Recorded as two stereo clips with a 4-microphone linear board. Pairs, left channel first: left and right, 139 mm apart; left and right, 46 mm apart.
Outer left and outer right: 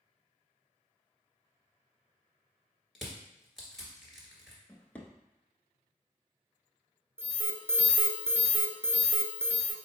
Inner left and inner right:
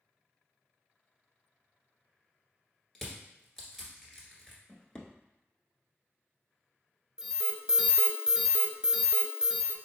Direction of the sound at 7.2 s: 20° right (ahead or behind).